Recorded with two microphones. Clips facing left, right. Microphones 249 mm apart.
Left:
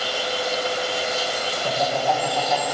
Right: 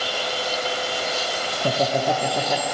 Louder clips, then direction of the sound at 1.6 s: Right 3 dB; 40° right (ahead or behind).